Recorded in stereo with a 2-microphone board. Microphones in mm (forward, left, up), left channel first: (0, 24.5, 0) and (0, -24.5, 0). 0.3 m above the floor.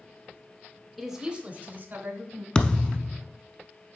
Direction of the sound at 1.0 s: 5° left (ahead or behind).